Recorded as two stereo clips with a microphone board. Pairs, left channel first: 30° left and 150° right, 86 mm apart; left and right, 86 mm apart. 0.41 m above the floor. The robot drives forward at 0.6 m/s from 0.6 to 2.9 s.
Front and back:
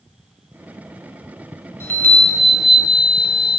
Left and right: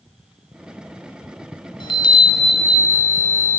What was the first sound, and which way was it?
A chime, 85° left.